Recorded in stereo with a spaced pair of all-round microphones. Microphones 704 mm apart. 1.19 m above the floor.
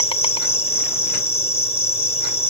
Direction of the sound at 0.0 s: 10° left (ahead or behind).